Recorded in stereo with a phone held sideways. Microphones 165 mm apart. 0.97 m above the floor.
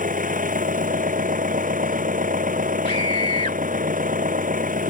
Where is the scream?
35° left (ahead or behind).